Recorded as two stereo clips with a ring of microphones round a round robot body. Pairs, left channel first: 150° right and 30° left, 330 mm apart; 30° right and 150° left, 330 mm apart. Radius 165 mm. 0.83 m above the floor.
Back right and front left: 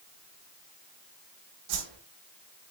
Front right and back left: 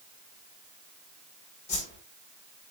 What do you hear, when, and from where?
1.7 s a whoosh: 40° left, 4.5 m